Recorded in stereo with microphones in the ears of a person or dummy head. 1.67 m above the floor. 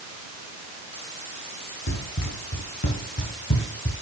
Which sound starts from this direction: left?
Running footsteps, at 1.9 s.